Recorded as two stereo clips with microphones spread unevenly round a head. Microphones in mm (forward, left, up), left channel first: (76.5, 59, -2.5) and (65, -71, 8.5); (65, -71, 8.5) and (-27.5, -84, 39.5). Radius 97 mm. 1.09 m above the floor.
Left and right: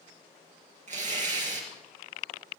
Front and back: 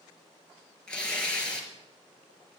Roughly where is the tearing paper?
Right.